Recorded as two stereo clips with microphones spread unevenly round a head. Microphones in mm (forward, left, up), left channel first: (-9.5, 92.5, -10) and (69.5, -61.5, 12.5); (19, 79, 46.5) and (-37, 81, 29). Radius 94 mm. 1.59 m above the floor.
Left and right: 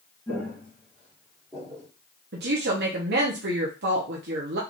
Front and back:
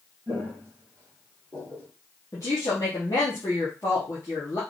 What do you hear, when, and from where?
0.3 s footsteps: 155° right, 2.0 m; by 1.9 s 115° right, 1.8 m
2.3 s a woman speaking: 60° right, 0.9 m